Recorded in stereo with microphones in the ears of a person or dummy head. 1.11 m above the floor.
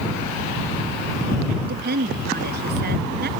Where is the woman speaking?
55° right (ahead or behind).